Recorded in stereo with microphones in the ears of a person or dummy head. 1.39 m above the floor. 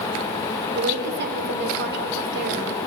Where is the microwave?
No microwave in this recording.